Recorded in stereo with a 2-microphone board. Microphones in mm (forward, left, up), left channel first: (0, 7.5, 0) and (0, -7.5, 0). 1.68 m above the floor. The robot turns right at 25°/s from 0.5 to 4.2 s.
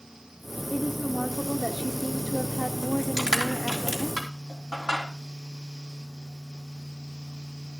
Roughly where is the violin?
I don't hear a violin.